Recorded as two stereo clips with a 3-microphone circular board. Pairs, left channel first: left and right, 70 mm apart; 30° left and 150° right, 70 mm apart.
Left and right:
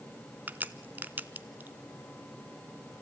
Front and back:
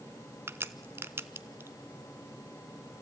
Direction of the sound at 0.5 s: 135° right.